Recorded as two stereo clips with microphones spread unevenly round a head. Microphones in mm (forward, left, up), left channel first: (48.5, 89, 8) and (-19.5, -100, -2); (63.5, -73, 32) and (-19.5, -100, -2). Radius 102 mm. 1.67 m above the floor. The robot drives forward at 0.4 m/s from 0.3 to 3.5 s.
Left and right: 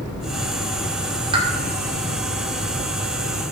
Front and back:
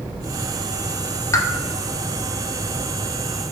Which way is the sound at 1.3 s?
40° right.